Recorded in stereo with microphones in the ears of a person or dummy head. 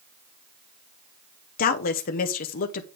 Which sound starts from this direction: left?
A woman speaking, at 1.6 s.